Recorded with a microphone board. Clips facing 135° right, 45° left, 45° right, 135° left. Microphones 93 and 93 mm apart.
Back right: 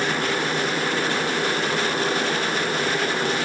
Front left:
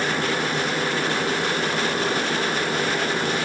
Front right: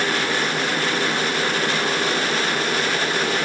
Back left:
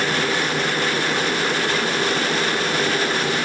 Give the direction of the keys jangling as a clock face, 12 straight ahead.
No keys jangling in this recording.